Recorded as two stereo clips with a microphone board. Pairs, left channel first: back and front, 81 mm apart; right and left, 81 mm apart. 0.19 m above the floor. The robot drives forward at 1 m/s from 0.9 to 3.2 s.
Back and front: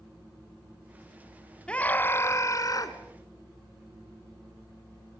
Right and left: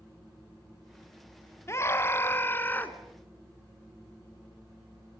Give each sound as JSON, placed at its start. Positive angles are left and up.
{"t": 1.7, "sound": "a scream", "azimuth_deg": -110, "distance_m": 1.3}